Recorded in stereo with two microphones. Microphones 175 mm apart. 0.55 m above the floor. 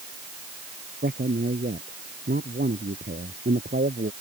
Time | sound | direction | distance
1.0 | a man speaking | 70° right (ahead or behind) | ?